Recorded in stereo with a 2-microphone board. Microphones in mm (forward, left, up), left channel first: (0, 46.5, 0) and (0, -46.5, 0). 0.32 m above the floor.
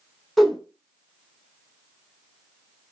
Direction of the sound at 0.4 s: Centre (ahead or behind).